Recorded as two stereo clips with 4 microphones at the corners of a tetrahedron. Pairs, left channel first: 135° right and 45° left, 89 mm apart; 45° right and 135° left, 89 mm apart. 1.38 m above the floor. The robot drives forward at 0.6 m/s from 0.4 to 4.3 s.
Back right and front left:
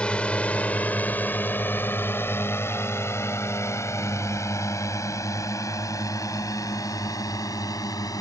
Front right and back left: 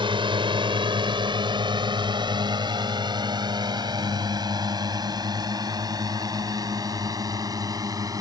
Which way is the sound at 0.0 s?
145° left.